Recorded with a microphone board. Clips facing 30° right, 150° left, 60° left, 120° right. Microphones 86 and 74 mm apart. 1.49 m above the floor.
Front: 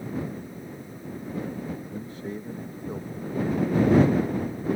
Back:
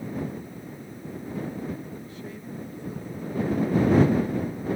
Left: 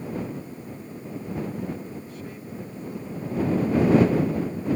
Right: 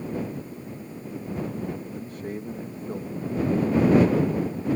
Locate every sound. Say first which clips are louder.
1.9 s a man speaking: front 4 dB, right 4 dB; 80° right